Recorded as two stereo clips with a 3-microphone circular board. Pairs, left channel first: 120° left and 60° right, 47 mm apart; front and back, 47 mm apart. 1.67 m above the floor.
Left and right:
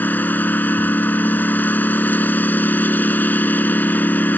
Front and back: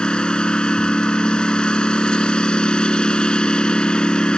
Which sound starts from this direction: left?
A lawn mower, at 0.0 s.